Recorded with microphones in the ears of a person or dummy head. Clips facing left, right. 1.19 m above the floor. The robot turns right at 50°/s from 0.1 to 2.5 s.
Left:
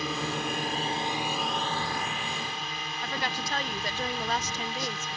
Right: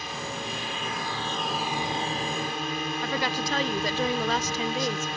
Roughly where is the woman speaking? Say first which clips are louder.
Right 3 dB; right.